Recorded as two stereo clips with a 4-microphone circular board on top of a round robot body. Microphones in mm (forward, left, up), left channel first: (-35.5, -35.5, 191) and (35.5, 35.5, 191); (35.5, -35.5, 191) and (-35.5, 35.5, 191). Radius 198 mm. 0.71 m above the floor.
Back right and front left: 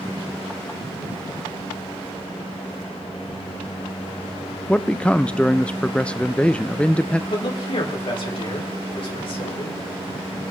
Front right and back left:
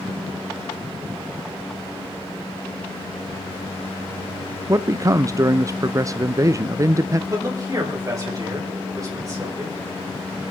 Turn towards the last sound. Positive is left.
turn(degrees=-170)